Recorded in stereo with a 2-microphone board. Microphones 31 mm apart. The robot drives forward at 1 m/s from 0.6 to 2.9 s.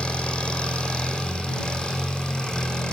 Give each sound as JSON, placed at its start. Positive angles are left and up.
{"t": 0.0, "sound": "an engine running", "side_deg": 35, "distance_m": 7.0}